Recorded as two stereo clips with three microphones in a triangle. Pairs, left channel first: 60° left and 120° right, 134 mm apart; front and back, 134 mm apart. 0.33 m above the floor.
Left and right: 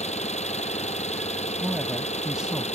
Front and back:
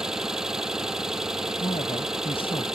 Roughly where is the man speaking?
Ahead right.